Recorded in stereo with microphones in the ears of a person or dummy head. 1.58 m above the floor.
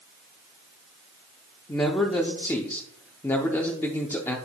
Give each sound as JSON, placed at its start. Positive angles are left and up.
{"t": 1.7, "sound": "a man speaking", "side_deg": 15, "distance_m": 0.7}